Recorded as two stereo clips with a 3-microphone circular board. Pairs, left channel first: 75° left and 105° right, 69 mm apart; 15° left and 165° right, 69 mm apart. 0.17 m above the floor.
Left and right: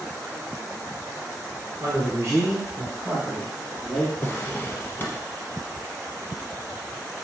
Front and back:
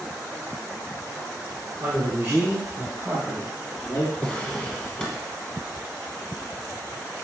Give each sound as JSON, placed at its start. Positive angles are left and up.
{"t": 1.8, "sound": "a man speaking", "azimuth_deg": -135, "distance_m": 2.5}
{"t": 4.2, "sound": "a drawer", "azimuth_deg": 75, "distance_m": 1.0}